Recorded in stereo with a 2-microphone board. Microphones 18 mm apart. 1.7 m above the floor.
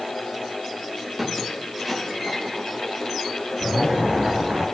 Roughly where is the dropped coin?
No dropped coin in this recording.